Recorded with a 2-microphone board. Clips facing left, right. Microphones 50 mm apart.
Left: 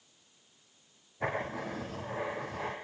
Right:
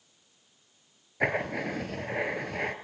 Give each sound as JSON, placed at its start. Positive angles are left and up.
{"t": 1.2, "sound": "writing", "side_deg": -65, "distance_m": 1.9}